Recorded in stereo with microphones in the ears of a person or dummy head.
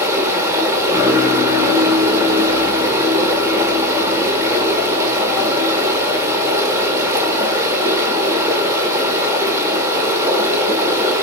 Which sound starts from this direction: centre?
Running water, at 0.0 s.